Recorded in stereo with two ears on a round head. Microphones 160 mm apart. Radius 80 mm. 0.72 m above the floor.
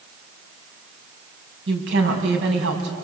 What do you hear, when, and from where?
1.7 s a woman speaking: 85° right, 5.5 m